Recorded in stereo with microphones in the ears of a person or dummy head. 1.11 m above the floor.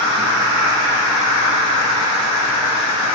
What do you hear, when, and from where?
0.0 s an insect: 30° right (ahead or behind), 1.6 m